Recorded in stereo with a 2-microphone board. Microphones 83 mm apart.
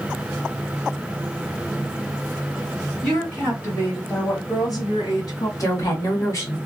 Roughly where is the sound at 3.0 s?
Centre.